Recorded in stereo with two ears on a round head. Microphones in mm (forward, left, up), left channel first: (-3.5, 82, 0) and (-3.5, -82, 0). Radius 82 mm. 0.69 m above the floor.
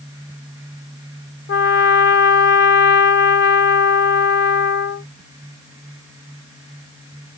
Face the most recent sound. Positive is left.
turn(degrees=60)  # may be behind; listen again after turning